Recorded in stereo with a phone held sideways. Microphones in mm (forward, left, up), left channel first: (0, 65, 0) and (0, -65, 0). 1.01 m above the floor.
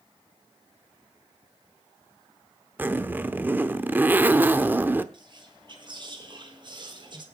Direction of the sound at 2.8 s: 15° right (ahead or behind).